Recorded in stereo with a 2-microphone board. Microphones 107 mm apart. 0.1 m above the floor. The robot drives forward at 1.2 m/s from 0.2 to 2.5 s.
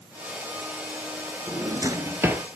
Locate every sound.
1.5 s a drawer: 25° right (ahead or behind), 0.6 m; by 2.5 s 15° right (ahead or behind), 1.0 m